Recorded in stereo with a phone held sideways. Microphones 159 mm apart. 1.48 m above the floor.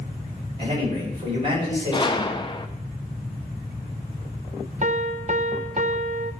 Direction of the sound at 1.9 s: 30° left (ahead or behind).